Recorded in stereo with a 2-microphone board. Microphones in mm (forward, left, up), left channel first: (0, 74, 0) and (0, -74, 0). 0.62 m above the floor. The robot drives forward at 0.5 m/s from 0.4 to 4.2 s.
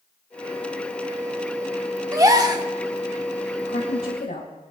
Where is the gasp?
20° right (ahead or behind), 1.2 m; by 2.6 s 25° right (ahead or behind), 1.0 m.